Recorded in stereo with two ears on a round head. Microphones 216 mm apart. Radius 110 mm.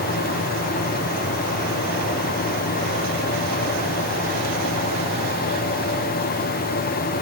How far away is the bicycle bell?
No bicycle bell in this recording.